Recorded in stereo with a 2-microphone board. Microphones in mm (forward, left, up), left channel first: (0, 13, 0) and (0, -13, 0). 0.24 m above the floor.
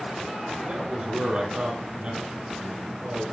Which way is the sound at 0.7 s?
45° right (ahead or behind).